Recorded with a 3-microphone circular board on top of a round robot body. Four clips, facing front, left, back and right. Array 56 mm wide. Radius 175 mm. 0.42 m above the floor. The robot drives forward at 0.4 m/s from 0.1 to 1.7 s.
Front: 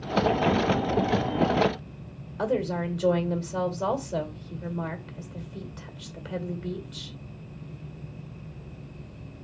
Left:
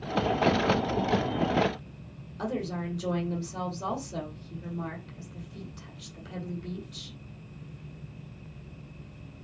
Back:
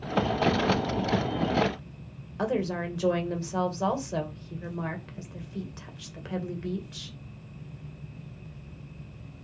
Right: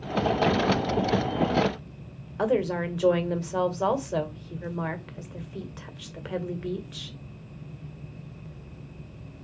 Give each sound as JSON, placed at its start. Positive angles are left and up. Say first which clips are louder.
{"t": 2.4, "sound": "a woman speaking", "louder": "right 8 dB, front 2 dB", "azimuth_deg": -100, "distance_m": 2.5}